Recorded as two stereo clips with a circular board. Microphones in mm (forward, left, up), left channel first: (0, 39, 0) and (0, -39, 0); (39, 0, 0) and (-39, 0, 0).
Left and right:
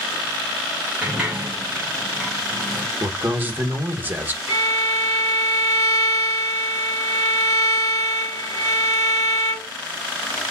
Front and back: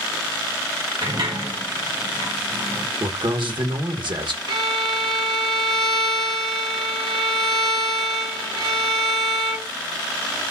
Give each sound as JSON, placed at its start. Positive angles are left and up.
{"t": 1.0, "sound": "a sliding door", "azimuth_deg": -170, "distance_m": 1.7}
{"t": 3.0, "sound": "a man speaking", "azimuth_deg": -155, "distance_m": 1.1}
{"t": 4.5, "sound": "a violin", "azimuth_deg": -165, "distance_m": 2.5}